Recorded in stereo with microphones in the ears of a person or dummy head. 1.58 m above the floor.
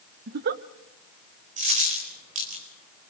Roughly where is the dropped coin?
Right.